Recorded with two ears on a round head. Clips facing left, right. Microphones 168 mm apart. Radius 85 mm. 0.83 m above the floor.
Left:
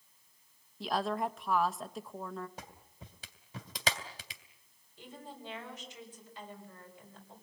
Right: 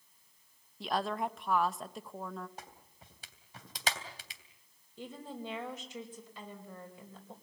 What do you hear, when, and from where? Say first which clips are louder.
0.8 s a woman speaking: left 1 dB; centre (ahead or behind), 0.7 m
2.6 s a clap: left 1 dB; 70° left (ahead or behind), 2.5 m
5.0 s a woman speaking: right 5 dB; 75° right (ahead or behind), 5 m